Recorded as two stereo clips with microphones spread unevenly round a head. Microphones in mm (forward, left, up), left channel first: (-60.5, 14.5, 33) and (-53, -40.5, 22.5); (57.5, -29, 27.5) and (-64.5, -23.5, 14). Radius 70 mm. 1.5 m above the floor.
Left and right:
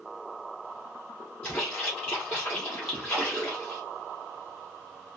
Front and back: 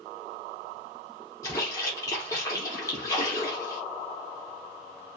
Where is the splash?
45° left, 0.7 m.